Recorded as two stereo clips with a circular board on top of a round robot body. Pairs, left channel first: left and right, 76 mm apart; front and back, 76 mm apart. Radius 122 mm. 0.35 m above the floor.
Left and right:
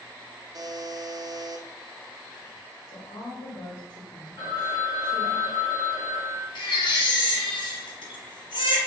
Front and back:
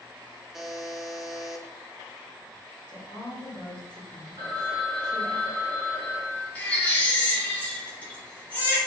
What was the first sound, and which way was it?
A buzzer, 95° right.